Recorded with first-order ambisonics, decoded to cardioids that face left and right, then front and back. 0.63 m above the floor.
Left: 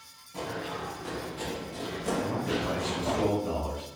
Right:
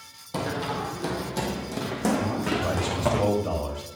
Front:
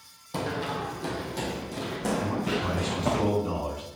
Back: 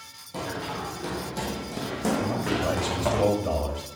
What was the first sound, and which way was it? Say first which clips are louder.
Running footsteps: right 6 dB, front 2 dB; 70° right.